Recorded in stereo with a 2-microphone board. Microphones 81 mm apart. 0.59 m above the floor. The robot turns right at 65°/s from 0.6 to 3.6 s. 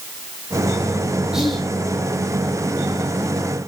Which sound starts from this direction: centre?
Whispering, at 1.3 s.